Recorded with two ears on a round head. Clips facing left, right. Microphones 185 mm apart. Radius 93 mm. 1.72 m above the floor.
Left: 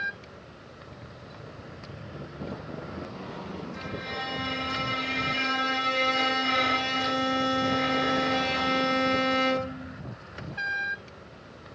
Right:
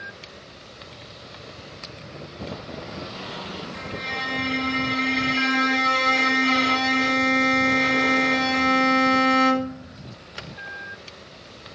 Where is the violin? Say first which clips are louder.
Right 2 dB; 55° right (ahead or behind), 1.7 m.